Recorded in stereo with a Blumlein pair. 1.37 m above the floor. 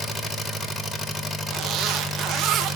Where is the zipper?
30° right, 1.0 m.